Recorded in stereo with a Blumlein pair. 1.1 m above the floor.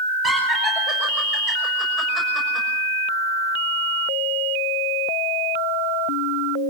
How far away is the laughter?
About 6.5 m.